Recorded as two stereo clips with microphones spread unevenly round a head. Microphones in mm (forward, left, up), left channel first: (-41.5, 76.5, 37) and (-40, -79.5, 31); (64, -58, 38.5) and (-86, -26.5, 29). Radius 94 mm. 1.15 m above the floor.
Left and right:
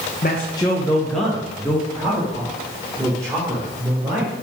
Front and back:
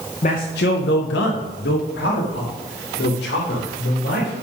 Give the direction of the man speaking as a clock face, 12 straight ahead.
11 o'clock.